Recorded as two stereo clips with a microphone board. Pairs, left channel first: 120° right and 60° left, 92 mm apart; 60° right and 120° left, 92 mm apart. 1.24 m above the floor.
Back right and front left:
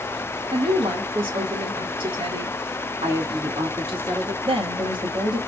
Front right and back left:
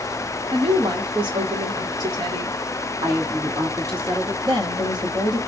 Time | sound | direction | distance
0.5 | a woman speaking | 85° left | 1.7 m
3.0 | a woman speaking | 80° left | 2.5 m
4.5 | a woman speaking | 80° left | 1.7 m